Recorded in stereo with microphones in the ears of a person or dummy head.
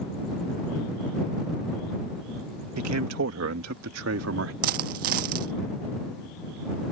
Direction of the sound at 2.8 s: 80° right.